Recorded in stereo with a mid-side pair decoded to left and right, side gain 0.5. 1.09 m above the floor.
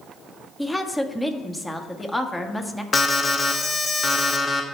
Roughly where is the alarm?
Ahead left.